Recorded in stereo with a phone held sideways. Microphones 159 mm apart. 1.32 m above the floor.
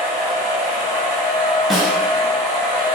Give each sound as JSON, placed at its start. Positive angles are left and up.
{"t": 0.0, "sound": "a machine running", "side_deg": -15, "distance_m": 1.8}
{"t": 1.7, "sound": "a snare drum", "side_deg": 0, "distance_m": 0.5}